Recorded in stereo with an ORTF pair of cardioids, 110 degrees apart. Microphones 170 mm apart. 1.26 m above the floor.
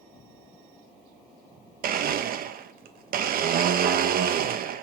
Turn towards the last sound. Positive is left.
turn(degrees=-55)